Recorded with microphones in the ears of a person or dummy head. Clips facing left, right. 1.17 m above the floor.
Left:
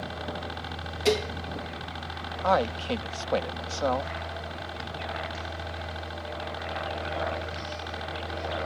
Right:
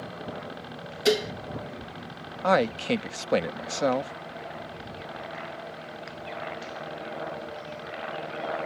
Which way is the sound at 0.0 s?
60° left (ahead or behind).